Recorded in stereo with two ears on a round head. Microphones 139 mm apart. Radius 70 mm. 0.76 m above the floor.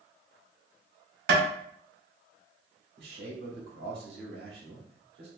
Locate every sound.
1.3 s tapping: 75° right (ahead or behind), 1.7 m
3.0 s a man speaking: 75° right (ahead or behind), 1.7 m